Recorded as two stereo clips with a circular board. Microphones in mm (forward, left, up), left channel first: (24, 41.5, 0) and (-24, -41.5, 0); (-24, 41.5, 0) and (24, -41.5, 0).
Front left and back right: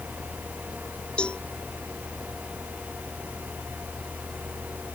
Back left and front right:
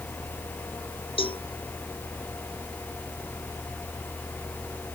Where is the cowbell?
140° left.